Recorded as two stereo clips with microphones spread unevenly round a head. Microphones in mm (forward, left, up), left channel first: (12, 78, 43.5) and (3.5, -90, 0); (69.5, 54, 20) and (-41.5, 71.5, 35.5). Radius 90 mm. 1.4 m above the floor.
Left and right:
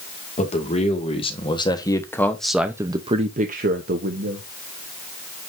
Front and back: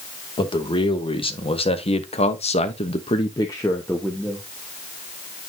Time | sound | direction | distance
0.4 | a man speaking | 35° left | 2.5 m